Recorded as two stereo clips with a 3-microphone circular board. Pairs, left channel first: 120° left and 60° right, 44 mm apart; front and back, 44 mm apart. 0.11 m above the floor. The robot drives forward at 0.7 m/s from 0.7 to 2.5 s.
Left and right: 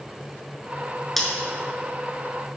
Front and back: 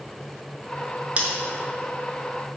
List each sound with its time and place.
1.2 s scissors: 155° right, 0.9 m; by 1.3 s 160° right, 0.9 m